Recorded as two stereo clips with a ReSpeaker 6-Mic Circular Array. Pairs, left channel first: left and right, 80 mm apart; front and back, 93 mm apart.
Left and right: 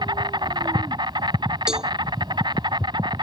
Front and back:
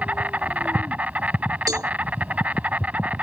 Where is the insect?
105° right.